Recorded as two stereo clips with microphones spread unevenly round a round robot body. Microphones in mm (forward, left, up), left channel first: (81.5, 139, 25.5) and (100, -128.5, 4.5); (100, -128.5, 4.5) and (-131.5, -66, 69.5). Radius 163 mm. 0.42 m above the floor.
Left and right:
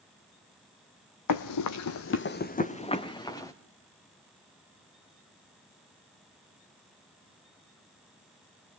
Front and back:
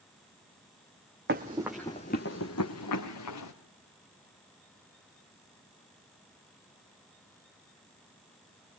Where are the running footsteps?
115° left, 1.1 m; by 3.5 s 15° left, 2.5 m.